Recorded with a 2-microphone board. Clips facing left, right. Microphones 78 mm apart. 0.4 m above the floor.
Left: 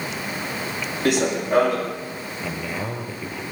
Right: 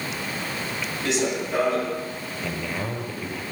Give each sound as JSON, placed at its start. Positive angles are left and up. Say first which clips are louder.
{"t": 1.1, "sound": "running footsteps", "louder": "left 5 dB", "side_deg": 55, "distance_m": 5.5}
{"t": 2.4, "sound": "a man speaking", "louder": "left 1 dB", "side_deg": 10, "distance_m": 8.5}